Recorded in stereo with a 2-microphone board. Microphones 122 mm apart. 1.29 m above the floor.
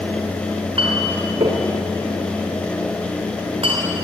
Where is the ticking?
No ticking in this recording.